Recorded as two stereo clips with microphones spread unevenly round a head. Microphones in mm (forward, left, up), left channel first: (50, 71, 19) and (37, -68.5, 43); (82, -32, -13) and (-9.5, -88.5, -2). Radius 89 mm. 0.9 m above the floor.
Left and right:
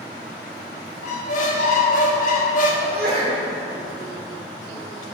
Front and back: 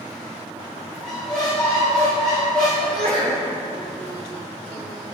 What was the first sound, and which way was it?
A squeak, 120° left.